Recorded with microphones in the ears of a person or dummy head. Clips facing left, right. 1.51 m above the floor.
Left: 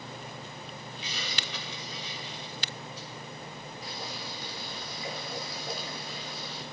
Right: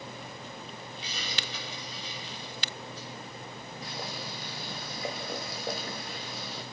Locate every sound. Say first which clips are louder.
1.0 s a hiss: even; 30° right (ahead or behind), 7.5 m
3.8 s boiling: right 2 dB; 45° right (ahead or behind), 1.3 m